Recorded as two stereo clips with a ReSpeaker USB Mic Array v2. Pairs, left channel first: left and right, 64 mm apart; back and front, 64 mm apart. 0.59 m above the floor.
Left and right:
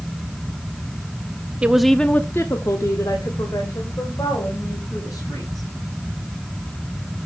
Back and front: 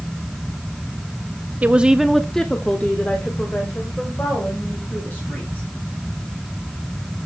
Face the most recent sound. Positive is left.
turn(degrees=120)